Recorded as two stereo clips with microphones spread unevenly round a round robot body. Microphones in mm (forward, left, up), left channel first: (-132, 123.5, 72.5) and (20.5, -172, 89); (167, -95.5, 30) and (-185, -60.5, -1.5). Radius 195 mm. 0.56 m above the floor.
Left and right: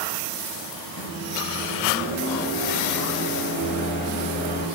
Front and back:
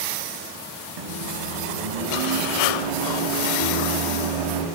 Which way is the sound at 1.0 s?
175° left.